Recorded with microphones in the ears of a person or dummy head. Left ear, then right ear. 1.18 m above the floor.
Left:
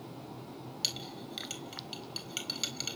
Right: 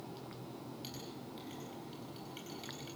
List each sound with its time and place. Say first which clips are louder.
0.8 s a clink: left 11 dB; 65° left (ahead or behind), 3.5 m